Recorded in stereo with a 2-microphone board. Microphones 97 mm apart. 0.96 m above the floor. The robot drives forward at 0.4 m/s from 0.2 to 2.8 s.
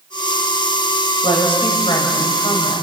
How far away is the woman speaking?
About 5 m.